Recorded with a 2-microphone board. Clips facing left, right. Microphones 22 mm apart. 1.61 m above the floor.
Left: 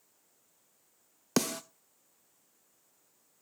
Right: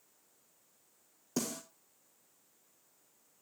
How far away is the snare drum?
About 0.6 m.